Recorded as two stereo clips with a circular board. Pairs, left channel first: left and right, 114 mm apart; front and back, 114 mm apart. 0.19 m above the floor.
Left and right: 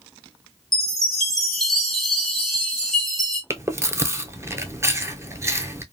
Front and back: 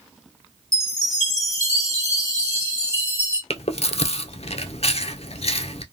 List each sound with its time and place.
0.7 s a chime: straight behind, 1.6 m
3.5 s chewing: 25° right, 0.5 m